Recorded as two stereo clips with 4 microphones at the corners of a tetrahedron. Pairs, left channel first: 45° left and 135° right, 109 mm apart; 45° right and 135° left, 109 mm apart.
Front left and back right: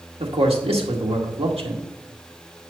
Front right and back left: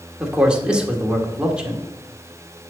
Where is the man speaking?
145° right, 1.9 m.